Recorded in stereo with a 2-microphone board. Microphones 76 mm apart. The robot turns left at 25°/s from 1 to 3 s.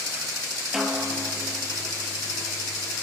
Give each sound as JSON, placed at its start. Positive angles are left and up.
{"t": 0.7, "sound": "a snare drum", "side_deg": -5, "distance_m": 3.0}